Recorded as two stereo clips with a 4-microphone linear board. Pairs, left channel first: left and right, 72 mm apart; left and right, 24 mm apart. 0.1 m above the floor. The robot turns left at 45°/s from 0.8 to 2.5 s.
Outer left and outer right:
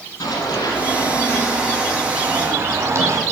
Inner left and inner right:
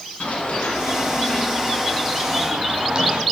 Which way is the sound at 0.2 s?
65° left (ahead or behind).